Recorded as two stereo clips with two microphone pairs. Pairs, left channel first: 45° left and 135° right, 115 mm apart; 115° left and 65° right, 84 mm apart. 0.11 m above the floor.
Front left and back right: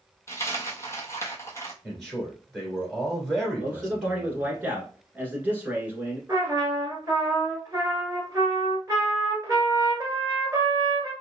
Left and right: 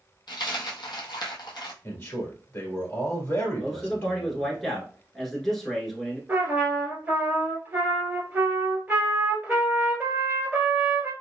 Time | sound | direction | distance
0.3 | a dropped coin | 110° left | 0.7 m
1.8 | a man speaking | 135° left | 1.6 m
3.6 | a man speaking | 170° right | 1.1 m
6.3 | a trumpet | 110° right | 1.4 m